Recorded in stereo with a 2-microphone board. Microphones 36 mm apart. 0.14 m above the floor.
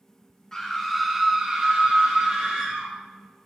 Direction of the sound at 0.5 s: 15° left (ahead or behind).